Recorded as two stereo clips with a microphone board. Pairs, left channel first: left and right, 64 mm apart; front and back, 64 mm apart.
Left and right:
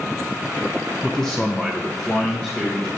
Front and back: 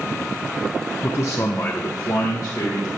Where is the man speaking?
5° left, 0.6 m; by 3.0 s 30° left, 1.8 m.